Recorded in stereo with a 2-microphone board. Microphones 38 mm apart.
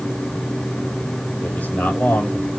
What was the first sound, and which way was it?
A man speaking, 55° left (ahead or behind).